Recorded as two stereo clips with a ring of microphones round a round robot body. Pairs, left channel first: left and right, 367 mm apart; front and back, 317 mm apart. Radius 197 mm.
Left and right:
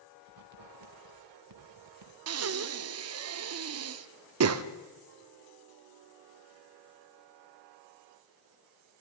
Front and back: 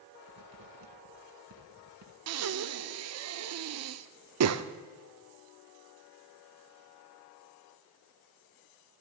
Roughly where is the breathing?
Behind right.